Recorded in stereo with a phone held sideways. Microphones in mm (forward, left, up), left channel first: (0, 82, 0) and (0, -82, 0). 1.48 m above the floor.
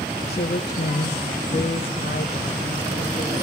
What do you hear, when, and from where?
0.3 s a woman speaking: 60° left (ahead or behind), 0.9 m; by 3.4 s 40° left (ahead or behind), 2.5 m